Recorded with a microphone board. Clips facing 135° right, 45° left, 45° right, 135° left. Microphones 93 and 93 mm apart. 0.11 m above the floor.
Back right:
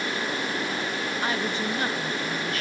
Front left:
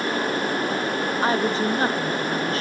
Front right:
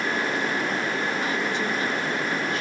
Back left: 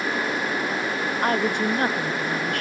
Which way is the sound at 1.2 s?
100° left.